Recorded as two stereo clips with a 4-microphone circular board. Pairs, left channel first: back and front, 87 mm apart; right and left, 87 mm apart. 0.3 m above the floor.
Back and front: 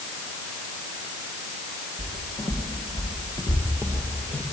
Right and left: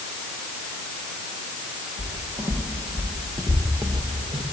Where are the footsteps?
165° left, 4 m; by 4.4 s 100° left, 3 m.